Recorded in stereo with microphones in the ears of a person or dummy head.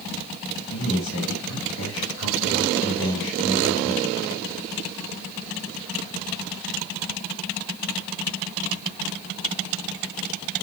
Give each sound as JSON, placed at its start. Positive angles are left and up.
{"t": 0.7, "sound": "a man speaking", "side_deg": 80, "distance_m": 5.5}